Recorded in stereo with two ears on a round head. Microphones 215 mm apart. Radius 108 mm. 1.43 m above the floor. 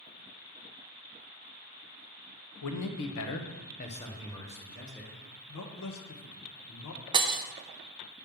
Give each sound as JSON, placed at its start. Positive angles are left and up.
{"t": 2.6, "sound": "a man speaking", "side_deg": 85, "distance_m": 0.9}
{"t": 5.5, "sound": "a man speaking", "side_deg": 65, "distance_m": 0.8}
{"t": 7.1, "sound": "breaking glass", "side_deg": -20, "distance_m": 0.6}